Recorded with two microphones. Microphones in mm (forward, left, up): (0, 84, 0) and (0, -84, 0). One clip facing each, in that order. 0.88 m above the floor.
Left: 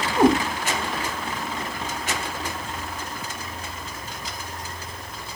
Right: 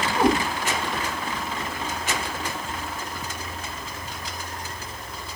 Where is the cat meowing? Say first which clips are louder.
Left 4 dB; 50° left (ahead or behind), 1.2 m.